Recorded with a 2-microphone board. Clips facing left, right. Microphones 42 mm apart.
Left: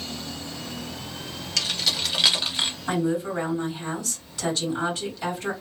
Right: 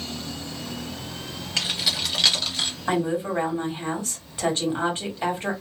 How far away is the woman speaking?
About 1.5 m.